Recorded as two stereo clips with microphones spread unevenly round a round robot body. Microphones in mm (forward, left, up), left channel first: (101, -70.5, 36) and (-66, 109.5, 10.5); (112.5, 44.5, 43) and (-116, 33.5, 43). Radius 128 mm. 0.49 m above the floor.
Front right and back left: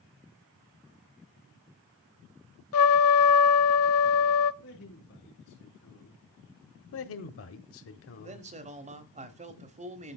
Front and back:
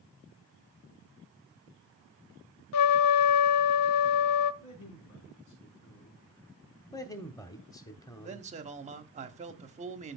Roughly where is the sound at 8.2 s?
Behind left.